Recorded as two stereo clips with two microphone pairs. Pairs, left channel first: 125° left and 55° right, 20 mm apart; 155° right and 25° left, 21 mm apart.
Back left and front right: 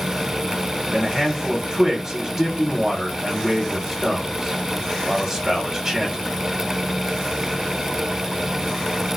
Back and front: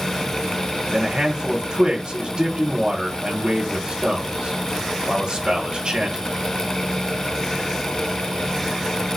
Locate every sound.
0.9 s a man speaking: 20° left, 0.9 m